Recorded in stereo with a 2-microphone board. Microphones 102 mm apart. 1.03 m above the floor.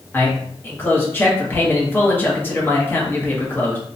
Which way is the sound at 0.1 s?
20° left (ahead or behind).